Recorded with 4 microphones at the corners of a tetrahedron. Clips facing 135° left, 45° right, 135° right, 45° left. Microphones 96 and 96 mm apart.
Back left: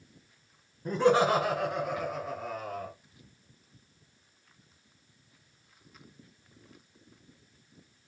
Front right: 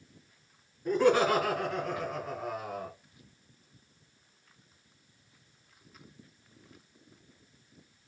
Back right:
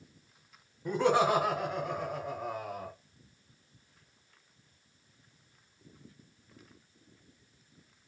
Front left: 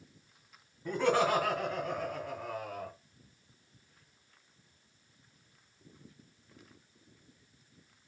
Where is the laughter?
160° left, 1.8 m; by 2.9 s 95° right, 1.5 m.